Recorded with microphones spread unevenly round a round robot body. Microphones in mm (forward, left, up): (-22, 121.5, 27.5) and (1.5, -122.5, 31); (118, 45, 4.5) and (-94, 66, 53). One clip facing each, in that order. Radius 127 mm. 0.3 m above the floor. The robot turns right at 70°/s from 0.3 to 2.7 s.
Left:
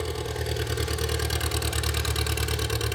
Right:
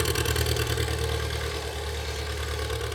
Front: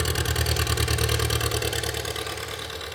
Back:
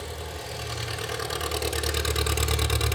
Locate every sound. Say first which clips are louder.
0.0 s an engine running: right 2 dB, front 7 dB; 20° right, 0.8 m; by 3.0 s 150° left, 0.8 m